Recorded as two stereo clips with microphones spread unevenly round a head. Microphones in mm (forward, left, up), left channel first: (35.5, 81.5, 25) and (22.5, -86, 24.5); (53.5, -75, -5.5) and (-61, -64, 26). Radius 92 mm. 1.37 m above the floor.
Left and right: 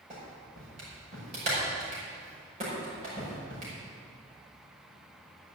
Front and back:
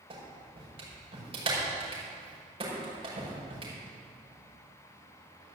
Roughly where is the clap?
Behind right.